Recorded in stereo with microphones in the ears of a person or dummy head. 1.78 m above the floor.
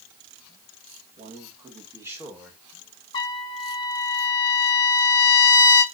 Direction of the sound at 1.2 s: 30° right (ahead or behind).